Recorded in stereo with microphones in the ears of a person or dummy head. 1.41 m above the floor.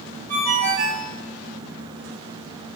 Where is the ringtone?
50° right (ahead or behind), 3 m.